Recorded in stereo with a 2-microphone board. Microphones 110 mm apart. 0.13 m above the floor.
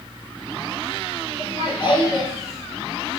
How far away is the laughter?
About 2 m.